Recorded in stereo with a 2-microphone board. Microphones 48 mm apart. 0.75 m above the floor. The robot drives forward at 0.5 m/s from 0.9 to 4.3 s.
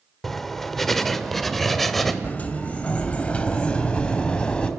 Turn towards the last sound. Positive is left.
turn(degrees=20)  # may be behind; listen again after turning